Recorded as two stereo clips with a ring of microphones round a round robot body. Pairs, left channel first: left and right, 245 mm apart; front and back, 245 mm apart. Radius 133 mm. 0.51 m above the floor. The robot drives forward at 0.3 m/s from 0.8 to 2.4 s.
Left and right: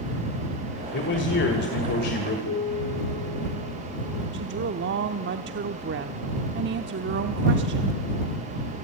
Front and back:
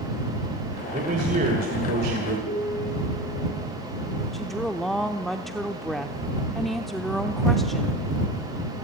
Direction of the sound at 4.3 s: 90° right.